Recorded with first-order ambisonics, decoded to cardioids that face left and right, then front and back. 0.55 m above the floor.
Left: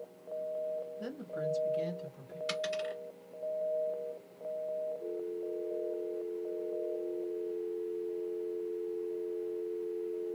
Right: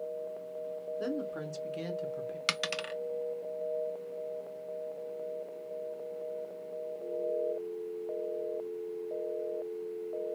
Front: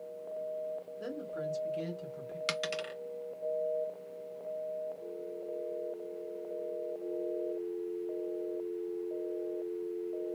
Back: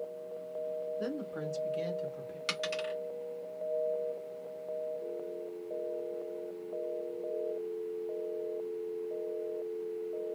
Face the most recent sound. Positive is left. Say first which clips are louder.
# right 1 dB, back 1 dB
turn(degrees=-75)